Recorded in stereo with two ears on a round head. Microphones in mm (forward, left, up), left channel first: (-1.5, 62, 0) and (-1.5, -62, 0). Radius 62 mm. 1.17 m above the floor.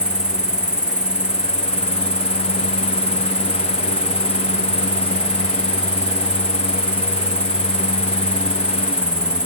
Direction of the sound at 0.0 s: 5° right (ahead or behind).